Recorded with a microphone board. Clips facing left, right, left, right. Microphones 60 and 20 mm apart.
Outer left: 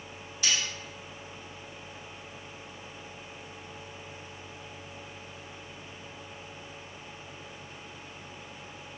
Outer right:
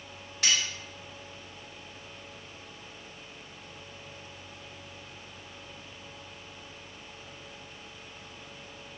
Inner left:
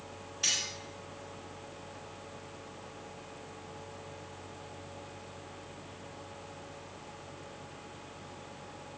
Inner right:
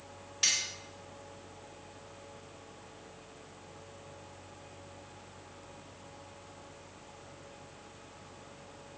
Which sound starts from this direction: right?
Cutlery clinking, at 0.4 s.